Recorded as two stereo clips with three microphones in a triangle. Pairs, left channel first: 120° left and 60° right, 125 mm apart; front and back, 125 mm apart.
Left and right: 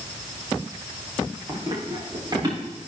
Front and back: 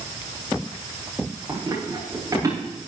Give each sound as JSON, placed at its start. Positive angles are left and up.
{"t": 1.5, "sound": "running footsteps", "azimuth_deg": -115, "distance_m": 7.5}